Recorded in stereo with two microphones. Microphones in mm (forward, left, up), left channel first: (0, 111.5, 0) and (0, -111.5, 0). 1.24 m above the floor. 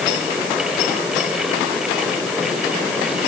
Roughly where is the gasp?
No gasp in this recording.